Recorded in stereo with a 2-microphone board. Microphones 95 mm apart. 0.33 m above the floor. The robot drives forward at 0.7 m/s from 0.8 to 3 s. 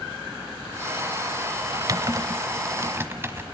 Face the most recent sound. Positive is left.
turn(degrees=-25)  # may be behind; listen again after turning